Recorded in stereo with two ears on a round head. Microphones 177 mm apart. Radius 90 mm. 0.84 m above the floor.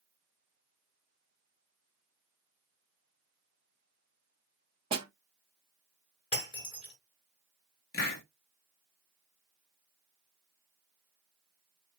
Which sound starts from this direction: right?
A snare drum, at 4.9 s.